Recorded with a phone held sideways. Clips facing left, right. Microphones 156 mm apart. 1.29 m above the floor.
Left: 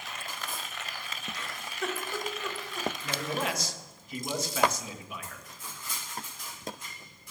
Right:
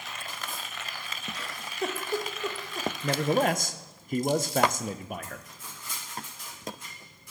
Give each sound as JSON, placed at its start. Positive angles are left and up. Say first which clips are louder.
{"t": 1.3, "sound": "a giggle", "louder": "right 4 dB", "side_deg": -35, "distance_m": 1.1}
{"t": 3.0, "sound": "a man speaking", "louder": "right 11 dB", "side_deg": -55, "distance_m": 0.7}